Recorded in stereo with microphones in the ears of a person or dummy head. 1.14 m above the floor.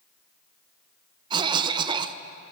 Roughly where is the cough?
Right.